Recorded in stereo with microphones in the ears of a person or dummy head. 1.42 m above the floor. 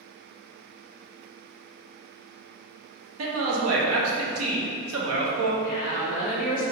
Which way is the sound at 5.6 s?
60° left (ahead or behind).